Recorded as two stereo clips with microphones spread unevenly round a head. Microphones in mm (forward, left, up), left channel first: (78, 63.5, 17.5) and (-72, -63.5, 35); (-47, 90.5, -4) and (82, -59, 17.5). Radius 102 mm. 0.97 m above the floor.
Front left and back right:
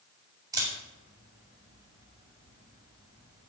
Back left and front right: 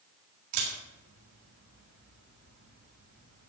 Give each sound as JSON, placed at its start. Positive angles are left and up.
{"t": 0.5, "sound": "a camera shutter", "azimuth_deg": -65, "distance_m": 6.5}